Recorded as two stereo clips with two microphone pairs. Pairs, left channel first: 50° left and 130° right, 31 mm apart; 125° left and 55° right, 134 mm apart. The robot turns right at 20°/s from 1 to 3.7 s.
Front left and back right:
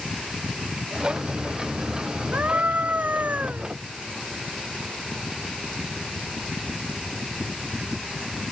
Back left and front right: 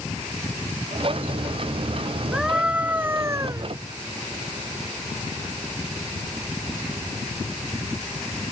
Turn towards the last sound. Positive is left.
turn(degrees=-115)